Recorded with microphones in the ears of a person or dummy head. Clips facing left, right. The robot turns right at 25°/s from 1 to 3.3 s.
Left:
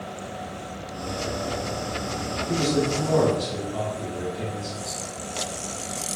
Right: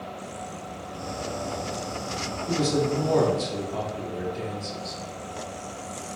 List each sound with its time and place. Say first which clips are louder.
2.5 s a man speaking: even; 60° right (ahead or behind), 0.9 m; by 5.0 s 65° right (ahead or behind), 0.9 m